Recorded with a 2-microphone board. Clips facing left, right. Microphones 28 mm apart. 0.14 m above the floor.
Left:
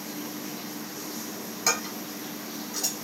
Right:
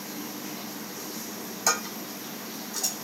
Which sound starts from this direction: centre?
Dishes clattering, at 1.7 s.